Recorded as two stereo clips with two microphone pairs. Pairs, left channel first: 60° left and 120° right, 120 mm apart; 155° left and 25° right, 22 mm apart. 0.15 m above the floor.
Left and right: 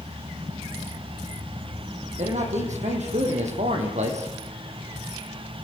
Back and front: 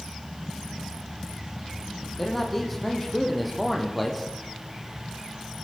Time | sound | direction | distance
2.2 | a man speaking | 125° right | 7 m